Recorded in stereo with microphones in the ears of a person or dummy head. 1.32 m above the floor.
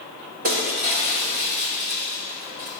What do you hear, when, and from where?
0.4 s breaking glass: 45° right (ahead or behind), 1.5 m